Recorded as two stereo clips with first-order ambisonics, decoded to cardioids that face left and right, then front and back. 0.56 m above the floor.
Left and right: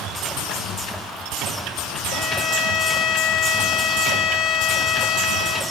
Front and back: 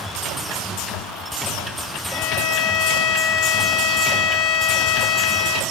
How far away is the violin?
About 2.5 m.